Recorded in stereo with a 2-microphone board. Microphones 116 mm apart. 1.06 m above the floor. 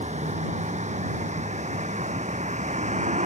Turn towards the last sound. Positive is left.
turn(degrees=-85)